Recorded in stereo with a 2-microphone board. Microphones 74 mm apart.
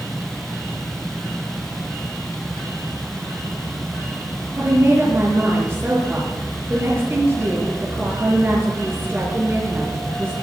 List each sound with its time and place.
4.6 s a woman speaking: 30° right (ahead or behind), 6 m